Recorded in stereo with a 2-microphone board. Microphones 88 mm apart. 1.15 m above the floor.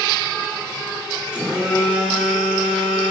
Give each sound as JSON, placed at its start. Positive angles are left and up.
{"t": 1.3, "sound": "a phone buzzing", "side_deg": -15, "distance_m": 2.5}